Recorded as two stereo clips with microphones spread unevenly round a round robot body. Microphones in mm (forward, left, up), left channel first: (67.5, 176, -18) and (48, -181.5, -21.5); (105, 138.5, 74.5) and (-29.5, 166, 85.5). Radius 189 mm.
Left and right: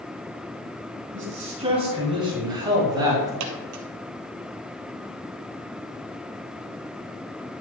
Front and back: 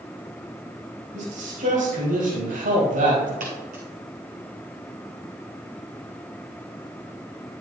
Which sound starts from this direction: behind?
A man speaking, at 1.1 s.